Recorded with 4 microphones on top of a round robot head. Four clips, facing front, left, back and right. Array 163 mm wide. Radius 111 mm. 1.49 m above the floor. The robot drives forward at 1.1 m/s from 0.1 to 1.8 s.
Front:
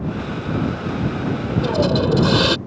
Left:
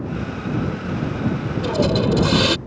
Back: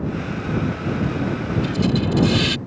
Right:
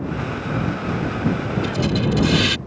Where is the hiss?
35° left.